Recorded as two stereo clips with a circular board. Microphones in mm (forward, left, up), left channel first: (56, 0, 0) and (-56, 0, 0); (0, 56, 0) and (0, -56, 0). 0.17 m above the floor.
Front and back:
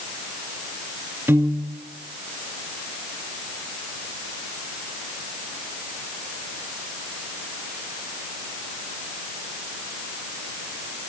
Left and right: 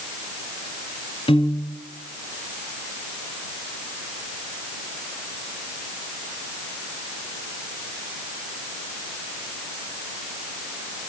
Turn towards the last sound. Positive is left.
turn(degrees=115)